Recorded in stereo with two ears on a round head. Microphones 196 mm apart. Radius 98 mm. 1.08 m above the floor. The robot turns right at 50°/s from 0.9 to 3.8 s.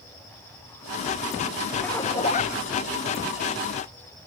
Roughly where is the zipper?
Ahead.